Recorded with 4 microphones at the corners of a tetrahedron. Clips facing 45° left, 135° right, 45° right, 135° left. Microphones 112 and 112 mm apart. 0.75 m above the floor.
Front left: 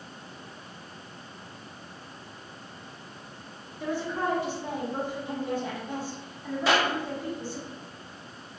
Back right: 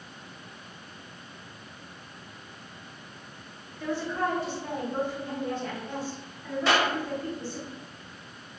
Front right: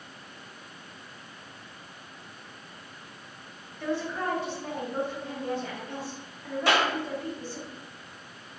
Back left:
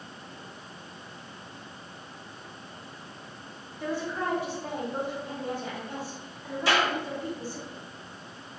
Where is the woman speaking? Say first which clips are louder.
Even, front right 1 dB; 90° left, 0.6 m.